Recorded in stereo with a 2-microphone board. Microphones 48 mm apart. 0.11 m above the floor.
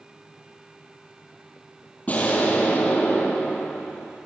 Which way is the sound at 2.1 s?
30° left (ahead or behind).